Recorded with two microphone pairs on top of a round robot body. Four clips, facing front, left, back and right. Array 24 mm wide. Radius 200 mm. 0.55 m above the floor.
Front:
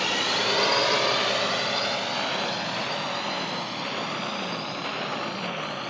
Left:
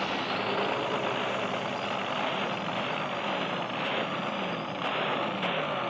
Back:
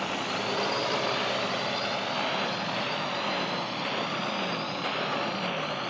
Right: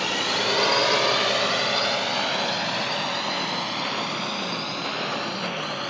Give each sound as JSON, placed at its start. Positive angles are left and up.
{"t": 0.0, "sound": "a drone", "azimuth_deg": -35}